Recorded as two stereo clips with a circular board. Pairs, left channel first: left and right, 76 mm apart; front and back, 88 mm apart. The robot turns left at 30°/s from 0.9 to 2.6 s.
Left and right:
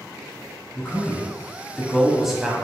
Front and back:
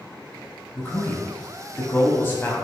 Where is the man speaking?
35° left, 1.0 m; by 2.5 s 15° right, 1.0 m.